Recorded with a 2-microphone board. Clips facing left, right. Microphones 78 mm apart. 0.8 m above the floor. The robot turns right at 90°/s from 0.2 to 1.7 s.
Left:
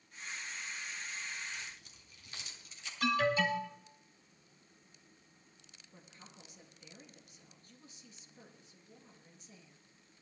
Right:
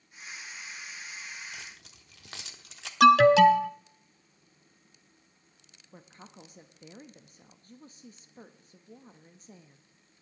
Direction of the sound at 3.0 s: 80° right.